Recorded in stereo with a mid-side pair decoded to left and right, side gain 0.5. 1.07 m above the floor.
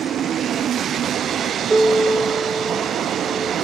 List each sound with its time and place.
1.7 s a piano: 20° right, 0.6 m